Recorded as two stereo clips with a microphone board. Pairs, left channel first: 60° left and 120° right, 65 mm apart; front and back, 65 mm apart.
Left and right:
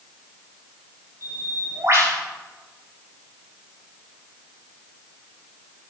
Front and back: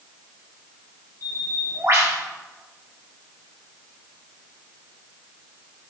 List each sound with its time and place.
1.2 s a bird: 150° right, 2 m